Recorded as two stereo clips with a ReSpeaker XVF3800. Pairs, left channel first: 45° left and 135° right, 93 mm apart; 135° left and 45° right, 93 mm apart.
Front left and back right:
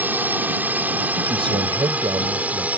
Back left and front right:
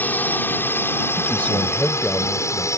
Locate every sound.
0.0 s a drone: straight behind; by 2.8 s 160° left
1.2 s a man speaking: 150° right